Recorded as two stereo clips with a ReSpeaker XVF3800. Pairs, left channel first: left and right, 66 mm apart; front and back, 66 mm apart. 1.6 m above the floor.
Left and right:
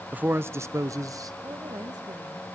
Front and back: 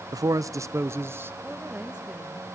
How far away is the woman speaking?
About 2.5 m.